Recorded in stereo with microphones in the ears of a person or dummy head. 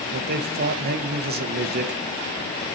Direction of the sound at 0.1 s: 50° right (ahead or behind).